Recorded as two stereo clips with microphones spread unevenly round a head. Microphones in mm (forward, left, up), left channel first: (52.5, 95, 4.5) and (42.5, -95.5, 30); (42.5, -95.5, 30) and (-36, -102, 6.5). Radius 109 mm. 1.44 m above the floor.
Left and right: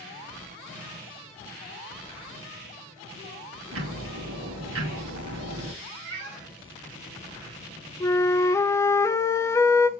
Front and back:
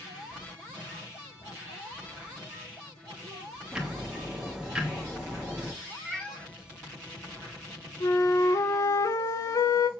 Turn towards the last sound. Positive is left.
turn(degrees=10)